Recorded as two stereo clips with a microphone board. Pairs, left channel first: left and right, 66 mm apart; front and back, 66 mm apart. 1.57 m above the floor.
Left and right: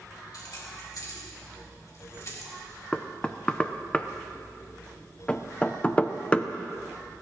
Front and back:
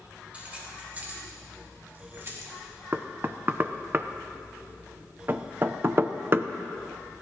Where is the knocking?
150° left, 0.5 m.